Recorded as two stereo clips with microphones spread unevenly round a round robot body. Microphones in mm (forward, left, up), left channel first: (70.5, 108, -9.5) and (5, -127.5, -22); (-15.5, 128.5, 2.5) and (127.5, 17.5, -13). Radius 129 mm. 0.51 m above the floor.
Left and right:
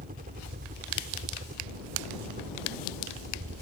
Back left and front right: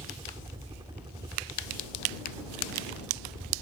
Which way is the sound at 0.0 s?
95° right.